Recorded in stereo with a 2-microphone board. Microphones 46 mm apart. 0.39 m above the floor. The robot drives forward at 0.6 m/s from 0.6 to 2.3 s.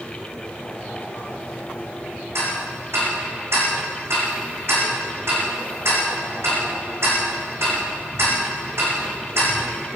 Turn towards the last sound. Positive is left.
turn(degrees=-70)  # may be behind; listen again after turning